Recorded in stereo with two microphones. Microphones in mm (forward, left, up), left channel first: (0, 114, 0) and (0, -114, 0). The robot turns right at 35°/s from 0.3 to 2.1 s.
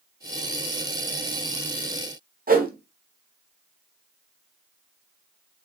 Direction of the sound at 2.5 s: 40° right (ahead or behind).